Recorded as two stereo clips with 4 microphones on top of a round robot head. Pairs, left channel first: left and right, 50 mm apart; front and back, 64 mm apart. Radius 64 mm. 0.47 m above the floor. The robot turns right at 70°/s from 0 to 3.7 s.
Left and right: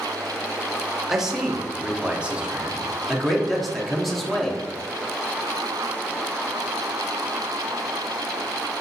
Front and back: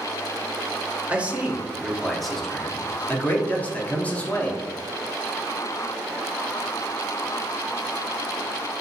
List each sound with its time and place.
1.1 s a man speaking: 170° right, 0.7 m; by 4.6 s 15° left, 0.7 m